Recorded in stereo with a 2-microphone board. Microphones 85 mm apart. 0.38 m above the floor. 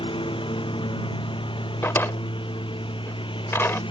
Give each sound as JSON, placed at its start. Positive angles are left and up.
{"t": 0.0, "sound": "a lawn mower", "side_deg": 80}
{"t": 1.8, "sound": "a drawer", "side_deg": 30}